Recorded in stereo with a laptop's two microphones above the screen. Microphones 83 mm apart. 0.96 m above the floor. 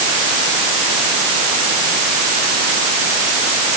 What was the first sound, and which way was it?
Only background noise.